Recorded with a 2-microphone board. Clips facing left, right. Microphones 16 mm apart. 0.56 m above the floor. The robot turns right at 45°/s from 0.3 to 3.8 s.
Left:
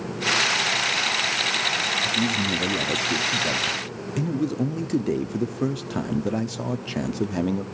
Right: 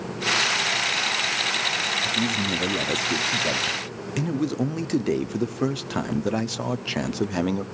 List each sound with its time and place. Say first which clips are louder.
2.0 s a man speaking: left 1 dB; 5° right (ahead or behind), 0.7 m; by 7.7 s 20° right (ahead or behind), 0.7 m